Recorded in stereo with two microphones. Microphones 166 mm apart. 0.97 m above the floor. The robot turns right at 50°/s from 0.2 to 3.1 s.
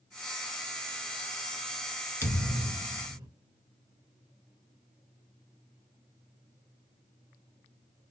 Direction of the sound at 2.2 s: 165° left.